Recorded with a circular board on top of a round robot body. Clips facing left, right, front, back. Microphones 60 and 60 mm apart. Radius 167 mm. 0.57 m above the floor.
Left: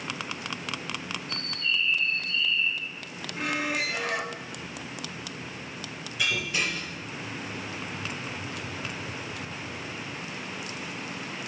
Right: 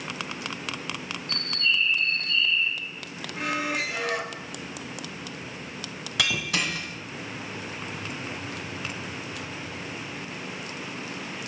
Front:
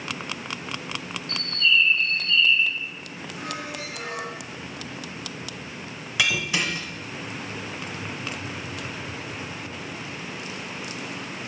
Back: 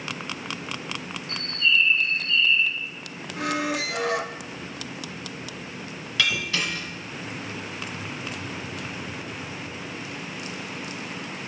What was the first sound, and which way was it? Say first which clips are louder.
A bird: right 4 dB, front 1 dB; 115° right.